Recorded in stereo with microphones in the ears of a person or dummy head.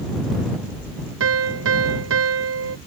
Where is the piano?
80° right.